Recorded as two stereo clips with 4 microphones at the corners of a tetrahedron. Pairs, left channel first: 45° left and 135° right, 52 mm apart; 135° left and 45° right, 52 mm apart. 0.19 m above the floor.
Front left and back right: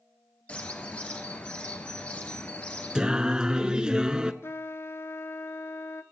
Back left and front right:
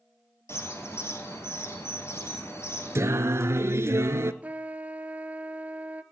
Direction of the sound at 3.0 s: 60° right.